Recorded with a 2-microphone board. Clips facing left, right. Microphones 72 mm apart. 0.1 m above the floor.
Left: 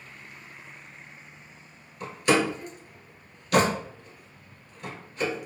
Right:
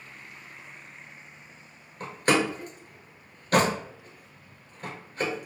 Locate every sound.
2.0 s a door slam: 40° right (ahead or behind), 1.1 m